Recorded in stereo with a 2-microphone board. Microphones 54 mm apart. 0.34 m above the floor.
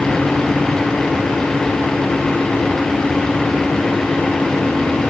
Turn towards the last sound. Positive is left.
No sound to turn to.